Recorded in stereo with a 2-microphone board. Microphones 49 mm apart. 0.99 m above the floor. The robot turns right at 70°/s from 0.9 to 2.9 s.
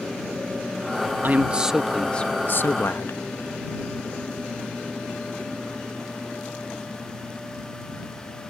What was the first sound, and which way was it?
A man speaking, 45° right.